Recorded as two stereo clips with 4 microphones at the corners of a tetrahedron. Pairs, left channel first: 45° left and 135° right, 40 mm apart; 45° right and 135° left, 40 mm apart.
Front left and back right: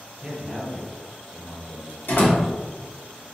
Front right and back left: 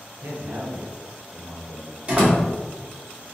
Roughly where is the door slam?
Left.